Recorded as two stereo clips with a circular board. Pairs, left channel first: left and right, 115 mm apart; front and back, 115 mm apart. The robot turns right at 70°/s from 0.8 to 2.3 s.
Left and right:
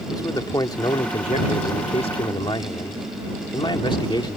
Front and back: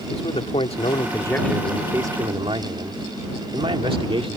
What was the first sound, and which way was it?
A man speaking, 35° left.